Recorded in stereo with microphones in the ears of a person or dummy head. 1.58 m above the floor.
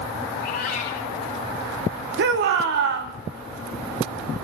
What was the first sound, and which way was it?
A cat meowing, 55° left (ahead or behind).